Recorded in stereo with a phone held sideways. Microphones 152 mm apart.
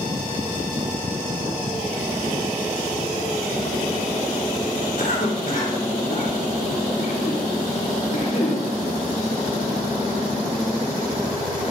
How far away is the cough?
About 3.5 m.